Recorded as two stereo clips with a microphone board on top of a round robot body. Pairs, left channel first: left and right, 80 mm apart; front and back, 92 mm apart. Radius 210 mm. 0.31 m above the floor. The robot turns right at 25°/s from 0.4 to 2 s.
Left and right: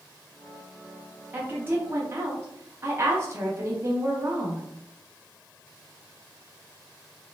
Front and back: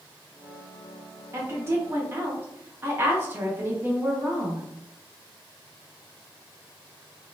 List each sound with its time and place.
1.3 s a woman speaking: 145° right, 1.0 m; by 4.7 s 125° right, 1.0 m